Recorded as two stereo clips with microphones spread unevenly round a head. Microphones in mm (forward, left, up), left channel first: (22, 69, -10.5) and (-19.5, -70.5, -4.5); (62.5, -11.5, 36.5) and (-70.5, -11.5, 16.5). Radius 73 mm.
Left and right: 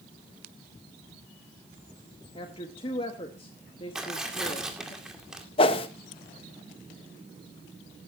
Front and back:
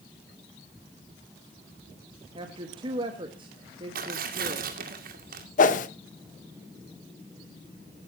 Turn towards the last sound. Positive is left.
turn(degrees=25)